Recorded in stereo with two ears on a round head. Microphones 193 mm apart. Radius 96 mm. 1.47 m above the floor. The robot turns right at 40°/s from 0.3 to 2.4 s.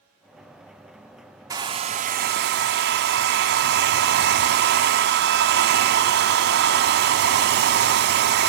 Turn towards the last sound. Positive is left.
turn(degrees=-125)